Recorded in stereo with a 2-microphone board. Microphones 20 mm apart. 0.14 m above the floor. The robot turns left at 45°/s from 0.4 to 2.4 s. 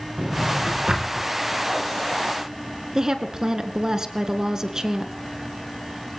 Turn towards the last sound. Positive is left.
turn(degrees=-35)  # may be behind; listen again after turning